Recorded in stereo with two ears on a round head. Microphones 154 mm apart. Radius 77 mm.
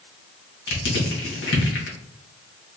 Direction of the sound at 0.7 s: 70° left (ahead or behind).